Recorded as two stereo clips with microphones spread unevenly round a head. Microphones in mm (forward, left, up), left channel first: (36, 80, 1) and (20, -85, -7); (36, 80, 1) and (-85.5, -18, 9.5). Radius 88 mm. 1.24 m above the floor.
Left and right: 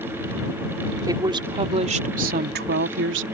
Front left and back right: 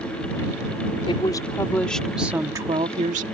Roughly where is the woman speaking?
Ahead right.